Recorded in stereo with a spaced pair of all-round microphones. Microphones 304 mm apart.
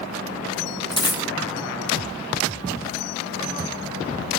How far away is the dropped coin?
About 0.6 m.